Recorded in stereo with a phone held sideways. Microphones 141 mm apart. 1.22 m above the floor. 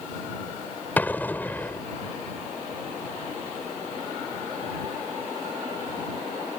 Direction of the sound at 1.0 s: 10° left (ahead or behind).